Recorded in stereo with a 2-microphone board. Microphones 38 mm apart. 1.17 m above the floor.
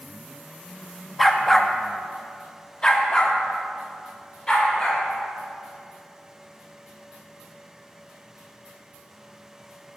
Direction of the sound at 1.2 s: 5° left (ahead or behind).